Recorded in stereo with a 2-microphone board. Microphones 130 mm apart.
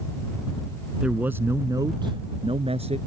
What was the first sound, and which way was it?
A man speaking, 5° right (ahead or behind).